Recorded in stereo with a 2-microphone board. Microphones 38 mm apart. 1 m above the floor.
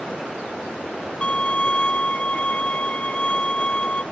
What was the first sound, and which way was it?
A violin, 30° left (ahead or behind).